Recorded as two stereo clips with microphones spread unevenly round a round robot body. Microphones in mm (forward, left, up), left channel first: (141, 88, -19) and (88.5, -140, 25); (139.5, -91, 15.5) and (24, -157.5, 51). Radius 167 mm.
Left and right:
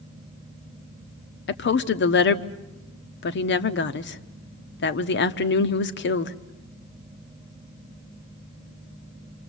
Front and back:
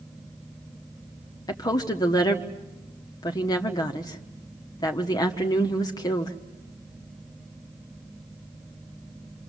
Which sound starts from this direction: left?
A woman speaking, at 1.5 s.